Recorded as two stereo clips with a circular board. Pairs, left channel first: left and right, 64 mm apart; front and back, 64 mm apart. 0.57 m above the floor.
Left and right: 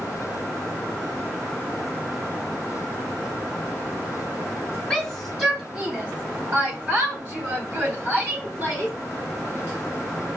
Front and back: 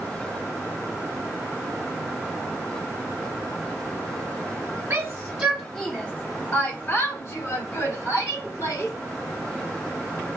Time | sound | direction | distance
4.9 | a shout | 170° left | 1.2 m